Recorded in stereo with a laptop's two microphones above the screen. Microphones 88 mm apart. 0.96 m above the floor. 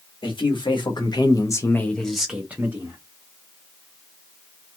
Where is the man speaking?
65° left (ahead or behind), 1.3 m; by 3.0 s 30° right (ahead or behind), 1.1 m.